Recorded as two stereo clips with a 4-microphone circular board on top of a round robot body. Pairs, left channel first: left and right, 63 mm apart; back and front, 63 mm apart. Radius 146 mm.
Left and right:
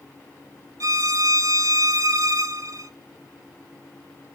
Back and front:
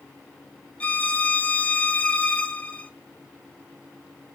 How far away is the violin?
About 0.5 m.